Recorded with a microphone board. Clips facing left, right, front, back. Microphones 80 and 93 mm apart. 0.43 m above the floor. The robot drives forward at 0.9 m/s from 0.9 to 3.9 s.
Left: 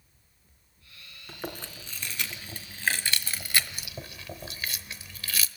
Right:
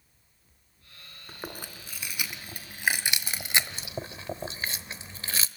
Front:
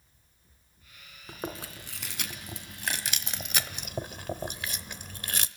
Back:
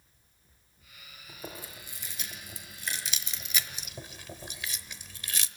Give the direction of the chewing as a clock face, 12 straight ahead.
12 o'clock.